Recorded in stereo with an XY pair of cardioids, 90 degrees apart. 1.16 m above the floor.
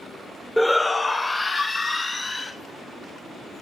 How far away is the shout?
About 0.5 m.